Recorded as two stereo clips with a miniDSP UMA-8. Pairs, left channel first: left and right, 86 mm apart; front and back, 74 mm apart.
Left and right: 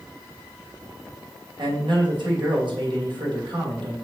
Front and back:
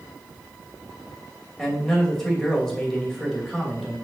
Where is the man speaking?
85° right, 2.5 m.